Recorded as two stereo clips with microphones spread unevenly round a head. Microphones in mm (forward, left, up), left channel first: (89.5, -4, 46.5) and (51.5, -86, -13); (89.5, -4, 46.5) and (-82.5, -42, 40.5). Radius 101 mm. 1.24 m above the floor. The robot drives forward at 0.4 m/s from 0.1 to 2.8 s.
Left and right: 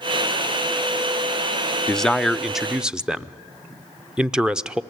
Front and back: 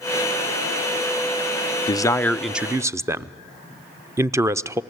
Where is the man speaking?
50° right, 0.6 m; by 4.8 s 100° right, 0.5 m.